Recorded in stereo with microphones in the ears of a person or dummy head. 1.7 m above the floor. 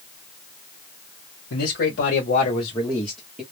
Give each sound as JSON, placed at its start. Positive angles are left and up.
{"t": 1.5, "sound": "a man speaking", "side_deg": 70, "distance_m": 1.1}